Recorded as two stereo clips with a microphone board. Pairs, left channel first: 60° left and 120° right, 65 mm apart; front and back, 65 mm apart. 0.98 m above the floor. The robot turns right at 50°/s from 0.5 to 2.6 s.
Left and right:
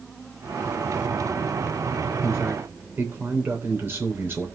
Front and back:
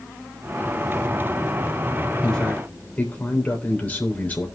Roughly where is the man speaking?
Right.